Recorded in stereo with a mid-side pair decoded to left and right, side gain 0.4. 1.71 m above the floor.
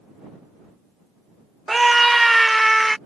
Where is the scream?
15° right; by 3.0 s 5° right.